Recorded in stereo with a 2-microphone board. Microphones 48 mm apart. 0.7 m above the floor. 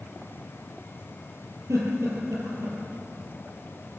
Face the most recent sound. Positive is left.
turn(degrees=-80)